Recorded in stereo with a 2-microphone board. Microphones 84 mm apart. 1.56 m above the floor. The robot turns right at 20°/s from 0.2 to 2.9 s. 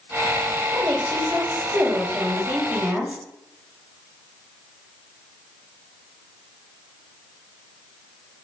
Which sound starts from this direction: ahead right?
A woman speaking, at 0.7 s.